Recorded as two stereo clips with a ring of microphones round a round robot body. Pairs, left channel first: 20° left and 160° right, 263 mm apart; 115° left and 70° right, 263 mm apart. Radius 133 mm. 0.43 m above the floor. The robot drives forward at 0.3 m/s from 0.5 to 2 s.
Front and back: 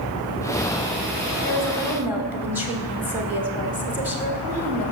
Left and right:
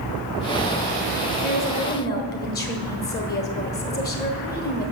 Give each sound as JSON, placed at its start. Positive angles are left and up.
{"t": 1.4, "sound": "a woman speaking", "azimuth_deg": 110, "distance_m": 1.1}